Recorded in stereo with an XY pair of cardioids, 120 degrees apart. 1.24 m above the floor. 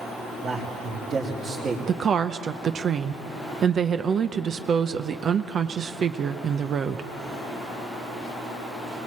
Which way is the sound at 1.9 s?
45° right.